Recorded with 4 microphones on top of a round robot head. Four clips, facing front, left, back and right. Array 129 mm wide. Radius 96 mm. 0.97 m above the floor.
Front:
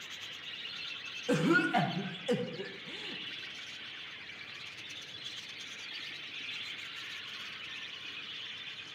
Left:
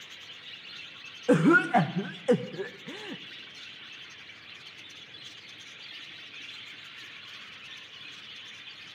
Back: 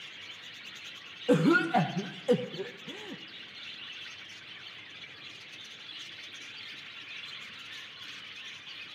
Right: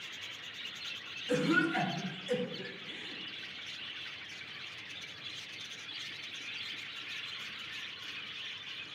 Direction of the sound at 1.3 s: 115° left.